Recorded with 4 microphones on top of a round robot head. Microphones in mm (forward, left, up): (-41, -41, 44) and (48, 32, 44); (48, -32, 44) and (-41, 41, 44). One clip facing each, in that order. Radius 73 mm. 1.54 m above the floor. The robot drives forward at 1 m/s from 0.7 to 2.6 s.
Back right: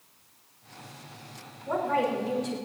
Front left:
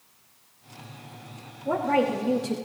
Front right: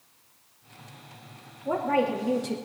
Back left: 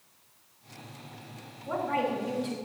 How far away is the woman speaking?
About 3.5 m.